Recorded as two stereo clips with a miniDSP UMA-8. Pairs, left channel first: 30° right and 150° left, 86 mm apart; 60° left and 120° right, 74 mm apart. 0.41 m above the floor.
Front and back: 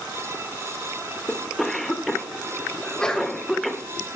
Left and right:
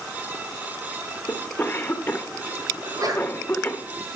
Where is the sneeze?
110° right, 2 m.